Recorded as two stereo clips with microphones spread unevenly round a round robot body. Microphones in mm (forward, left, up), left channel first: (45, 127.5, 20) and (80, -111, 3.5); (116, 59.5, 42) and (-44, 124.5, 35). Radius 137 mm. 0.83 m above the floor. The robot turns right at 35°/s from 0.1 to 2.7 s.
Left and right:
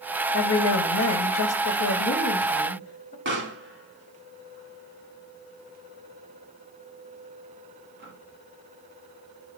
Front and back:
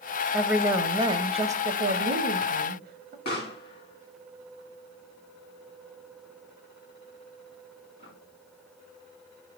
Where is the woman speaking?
75° left, 0.6 m; by 3.1 s 155° left, 0.6 m.